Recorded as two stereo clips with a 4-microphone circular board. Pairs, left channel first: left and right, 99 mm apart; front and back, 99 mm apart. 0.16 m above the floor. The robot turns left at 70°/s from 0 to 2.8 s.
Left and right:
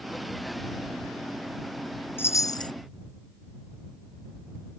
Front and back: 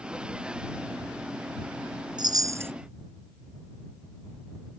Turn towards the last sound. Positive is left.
turn(degrees=110)